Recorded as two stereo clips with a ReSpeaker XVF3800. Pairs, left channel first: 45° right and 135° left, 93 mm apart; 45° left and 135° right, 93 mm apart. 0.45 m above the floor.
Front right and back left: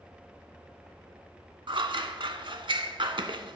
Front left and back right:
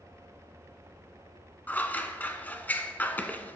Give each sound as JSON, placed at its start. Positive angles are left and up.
{"t": 1.7, "sound": "scissors", "azimuth_deg": 115, "distance_m": 0.7}